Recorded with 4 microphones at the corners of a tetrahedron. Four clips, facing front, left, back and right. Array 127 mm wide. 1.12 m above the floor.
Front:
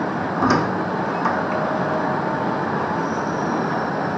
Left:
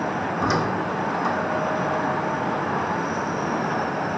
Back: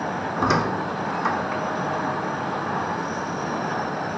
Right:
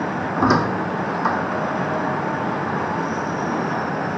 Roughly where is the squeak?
Right.